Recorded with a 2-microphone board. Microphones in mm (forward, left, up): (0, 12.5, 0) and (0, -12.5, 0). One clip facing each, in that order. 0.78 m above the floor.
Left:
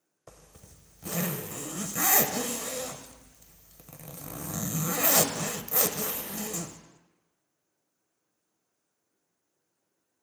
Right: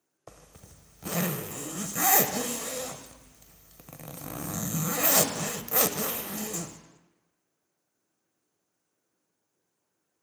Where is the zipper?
25° right (ahead or behind), 0.5 m.